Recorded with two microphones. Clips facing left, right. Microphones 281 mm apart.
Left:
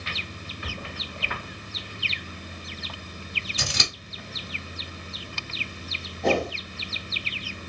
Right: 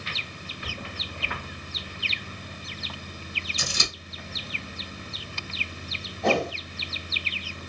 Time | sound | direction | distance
3.6 | scissors | 75° left (ahead or behind) | 1.0 m
6.2 | a whoosh | 5° left (ahead or behind) | 1.7 m